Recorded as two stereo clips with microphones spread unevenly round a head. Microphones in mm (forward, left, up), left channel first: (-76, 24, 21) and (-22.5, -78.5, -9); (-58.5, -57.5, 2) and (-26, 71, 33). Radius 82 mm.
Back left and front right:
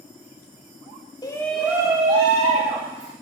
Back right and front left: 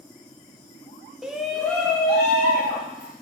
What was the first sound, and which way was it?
A shout, straight behind.